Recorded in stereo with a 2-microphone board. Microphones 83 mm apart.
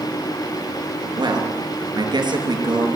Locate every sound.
1.2 s a man speaking: 65° right (ahead or behind), 5 m